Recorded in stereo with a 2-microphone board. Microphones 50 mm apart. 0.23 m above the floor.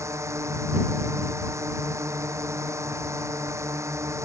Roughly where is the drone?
Right.